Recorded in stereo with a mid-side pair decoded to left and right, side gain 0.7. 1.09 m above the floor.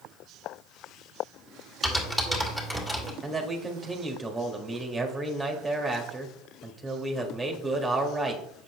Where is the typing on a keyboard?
10° left, 2.5 m.